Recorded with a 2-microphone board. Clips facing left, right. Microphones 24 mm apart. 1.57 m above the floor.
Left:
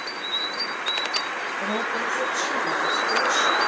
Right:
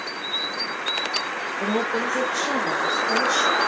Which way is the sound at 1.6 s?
55° right (ahead or behind).